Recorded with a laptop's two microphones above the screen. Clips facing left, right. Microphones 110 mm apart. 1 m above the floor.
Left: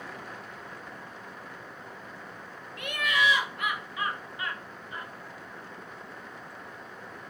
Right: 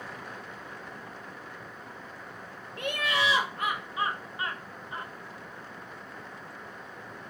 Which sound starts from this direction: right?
Laughter, at 2.8 s.